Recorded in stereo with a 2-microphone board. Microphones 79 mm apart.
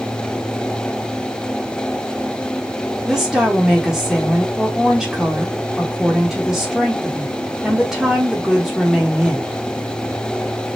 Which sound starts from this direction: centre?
A woman speaking, at 3.0 s.